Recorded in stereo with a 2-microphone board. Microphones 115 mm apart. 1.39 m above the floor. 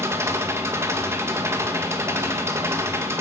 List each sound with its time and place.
0.0 s an engine running: 20° right (ahead or behind), 1.7 m